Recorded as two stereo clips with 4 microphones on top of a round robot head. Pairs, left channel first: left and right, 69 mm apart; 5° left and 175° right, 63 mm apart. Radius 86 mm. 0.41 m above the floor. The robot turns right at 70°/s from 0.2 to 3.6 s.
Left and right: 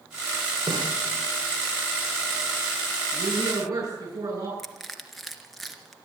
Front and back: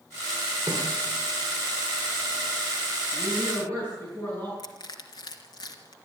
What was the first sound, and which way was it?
A snare drum, 145° right.